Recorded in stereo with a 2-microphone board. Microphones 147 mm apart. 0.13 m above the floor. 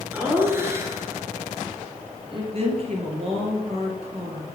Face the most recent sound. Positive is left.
turn(degrees=-45)  # may be behind; listen again after turning